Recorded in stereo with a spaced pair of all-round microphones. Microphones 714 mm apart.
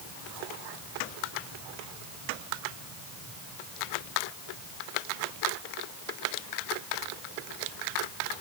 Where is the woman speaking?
I don't hear a woman speaking.